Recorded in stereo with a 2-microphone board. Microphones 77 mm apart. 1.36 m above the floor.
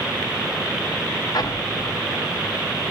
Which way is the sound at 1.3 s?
60° left (ahead or behind).